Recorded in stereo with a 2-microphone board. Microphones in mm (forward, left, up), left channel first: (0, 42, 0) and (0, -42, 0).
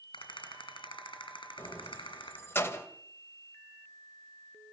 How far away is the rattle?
About 6 m.